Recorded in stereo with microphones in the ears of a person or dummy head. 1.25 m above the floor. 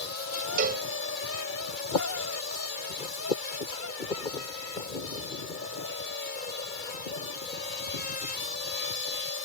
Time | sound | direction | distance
0.6 | a cowbell | 40° right (ahead or behind) | 0.6 m